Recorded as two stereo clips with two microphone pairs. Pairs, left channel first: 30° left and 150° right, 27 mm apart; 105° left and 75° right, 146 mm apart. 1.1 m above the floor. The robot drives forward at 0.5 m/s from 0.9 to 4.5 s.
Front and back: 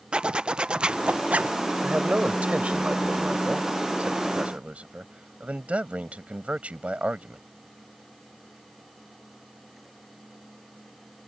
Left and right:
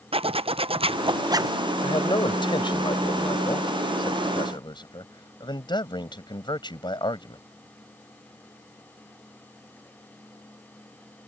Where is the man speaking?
165° left.